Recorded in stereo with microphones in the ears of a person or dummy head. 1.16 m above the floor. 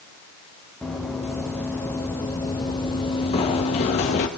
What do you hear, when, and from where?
0.8 s running footsteps: centre (ahead or behind), 3 m; by 4.3 s 40° left (ahead or behind), 1.8 m